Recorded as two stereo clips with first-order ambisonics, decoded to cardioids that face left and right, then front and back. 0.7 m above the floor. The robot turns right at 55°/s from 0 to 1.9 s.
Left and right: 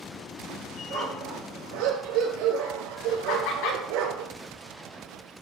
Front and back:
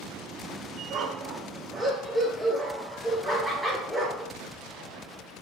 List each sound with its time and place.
0.9 s a dog barking: 150° right, 4.5 m; by 4.3 s 95° right, 4.5 m
3.3 s laughter: 95° left, 5.5 m